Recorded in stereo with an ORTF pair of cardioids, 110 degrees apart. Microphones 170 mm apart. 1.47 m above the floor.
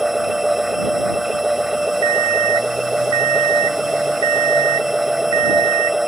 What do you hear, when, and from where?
0.0 s a machine running: straight ahead
2.0 s an alarm clock: 30° right